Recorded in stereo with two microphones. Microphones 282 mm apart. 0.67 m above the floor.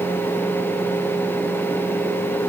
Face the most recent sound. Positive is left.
No sound to turn to.